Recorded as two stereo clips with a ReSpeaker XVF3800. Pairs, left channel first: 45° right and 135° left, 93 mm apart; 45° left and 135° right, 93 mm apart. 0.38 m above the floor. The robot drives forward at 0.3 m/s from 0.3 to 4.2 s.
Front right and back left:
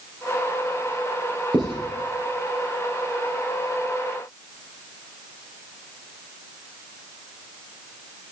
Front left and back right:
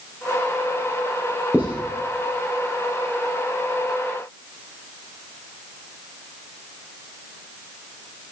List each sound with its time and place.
1.5 s writing: 155° left, 4.5 m